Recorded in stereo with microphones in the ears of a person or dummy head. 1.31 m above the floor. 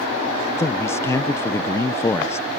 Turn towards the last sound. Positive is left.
turn(degrees=15)  # may be behind; listen again after turning